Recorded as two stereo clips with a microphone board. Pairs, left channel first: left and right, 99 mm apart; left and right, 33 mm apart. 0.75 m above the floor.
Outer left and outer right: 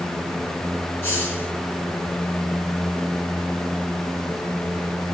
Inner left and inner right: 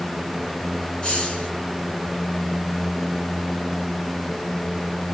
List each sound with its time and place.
1.0 s a hiss: 25° left (ahead or behind), 3.5 m